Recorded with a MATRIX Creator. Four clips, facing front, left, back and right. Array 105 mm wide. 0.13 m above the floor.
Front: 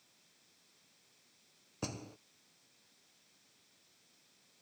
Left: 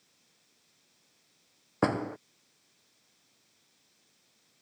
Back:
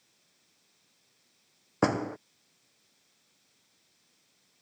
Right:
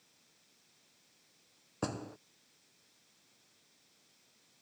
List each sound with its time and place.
1.8 s a door slam: 150° left